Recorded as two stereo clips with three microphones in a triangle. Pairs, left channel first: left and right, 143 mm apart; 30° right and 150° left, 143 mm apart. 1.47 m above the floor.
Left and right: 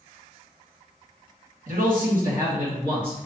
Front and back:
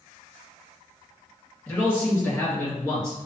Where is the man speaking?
105° right, 2 m; by 3.2 s 95° right, 3 m.